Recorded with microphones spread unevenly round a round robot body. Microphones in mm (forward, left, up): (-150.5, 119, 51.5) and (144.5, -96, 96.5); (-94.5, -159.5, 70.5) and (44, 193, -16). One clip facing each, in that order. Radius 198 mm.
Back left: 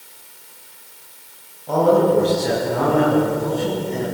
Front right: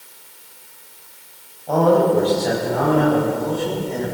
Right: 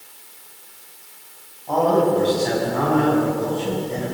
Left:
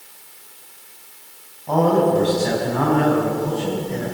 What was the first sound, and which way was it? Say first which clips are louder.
A man speaking: even, left 1 dB; 60° left.